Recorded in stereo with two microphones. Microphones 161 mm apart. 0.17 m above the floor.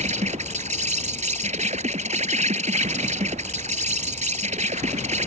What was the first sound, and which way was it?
An insect, 50° right (ahead or behind).